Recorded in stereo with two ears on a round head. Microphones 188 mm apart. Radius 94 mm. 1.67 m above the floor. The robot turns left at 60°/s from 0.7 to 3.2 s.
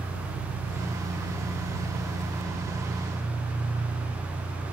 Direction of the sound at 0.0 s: 45° right.